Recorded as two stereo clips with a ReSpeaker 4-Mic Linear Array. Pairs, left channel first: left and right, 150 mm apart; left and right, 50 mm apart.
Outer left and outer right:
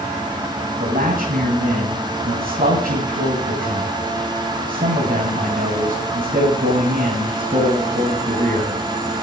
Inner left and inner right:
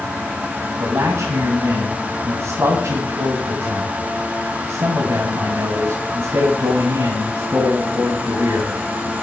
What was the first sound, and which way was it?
A man speaking, 75° right (ahead or behind).